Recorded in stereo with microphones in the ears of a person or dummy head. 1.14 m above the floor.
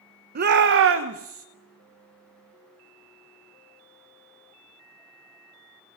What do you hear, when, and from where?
0.3 s a shout: 50° right (ahead or behind), 1.2 m; by 1.4 s 70° right (ahead or behind), 1.8 m